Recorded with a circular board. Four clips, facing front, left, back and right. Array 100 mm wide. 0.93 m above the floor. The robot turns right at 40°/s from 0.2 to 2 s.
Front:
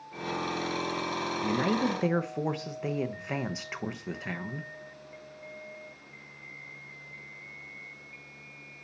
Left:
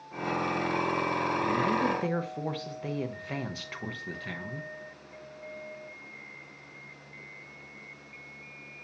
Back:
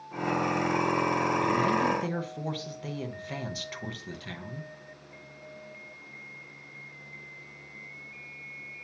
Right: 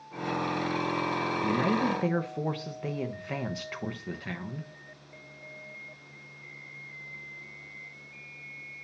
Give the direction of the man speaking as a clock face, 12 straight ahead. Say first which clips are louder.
Right 2 dB, front 1 dB; 1 o'clock.